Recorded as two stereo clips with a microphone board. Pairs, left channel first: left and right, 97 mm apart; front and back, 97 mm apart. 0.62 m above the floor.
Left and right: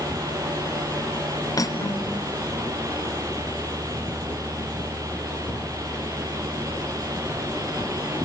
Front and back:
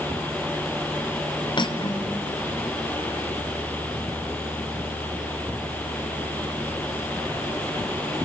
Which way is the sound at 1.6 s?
35° left.